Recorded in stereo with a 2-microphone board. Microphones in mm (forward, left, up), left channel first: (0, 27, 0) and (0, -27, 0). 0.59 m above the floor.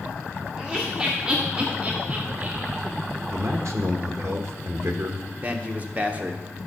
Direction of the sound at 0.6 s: 10° right (ahead or behind).